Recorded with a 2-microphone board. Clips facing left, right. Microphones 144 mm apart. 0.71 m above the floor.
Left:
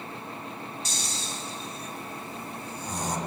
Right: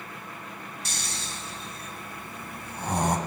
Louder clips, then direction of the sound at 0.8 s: Left 2 dB; 60° right (ahead or behind).